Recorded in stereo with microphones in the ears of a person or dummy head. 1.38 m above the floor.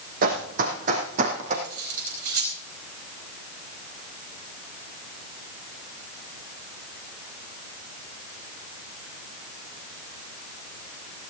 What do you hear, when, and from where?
0.2 s running footsteps: 55° right (ahead or behind), 3.5 m; by 1.5 s 45° right (ahead or behind), 4 m
1.6 s cutlery clinking: 80° right, 4 m